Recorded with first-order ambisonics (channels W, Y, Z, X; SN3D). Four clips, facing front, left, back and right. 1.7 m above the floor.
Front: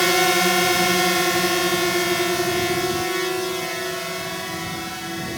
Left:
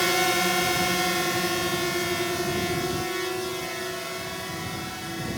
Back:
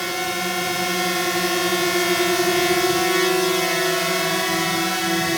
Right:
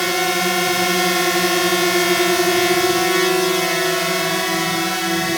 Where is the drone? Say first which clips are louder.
Right 4 dB, front 7 dB; 25° right; by 5.4 s 125° right.